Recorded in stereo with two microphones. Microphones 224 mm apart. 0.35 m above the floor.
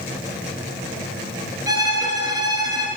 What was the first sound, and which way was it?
A violin, 15° right (ahead or behind).